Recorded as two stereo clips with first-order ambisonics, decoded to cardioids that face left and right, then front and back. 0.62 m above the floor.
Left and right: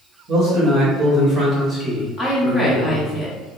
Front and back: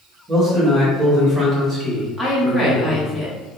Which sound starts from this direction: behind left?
A woman speaking, at 2.2 s.